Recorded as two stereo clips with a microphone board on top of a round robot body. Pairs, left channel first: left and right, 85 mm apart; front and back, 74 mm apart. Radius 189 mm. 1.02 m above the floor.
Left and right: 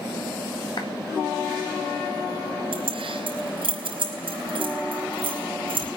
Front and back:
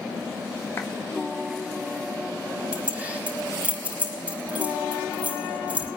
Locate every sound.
0.8 s a clap: 60° left, 2 m
2.7 s keys jangling: 105° right, 4 m